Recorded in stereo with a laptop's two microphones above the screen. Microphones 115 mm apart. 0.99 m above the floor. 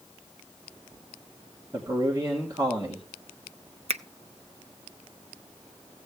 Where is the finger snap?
65° right (ahead or behind), 0.6 m.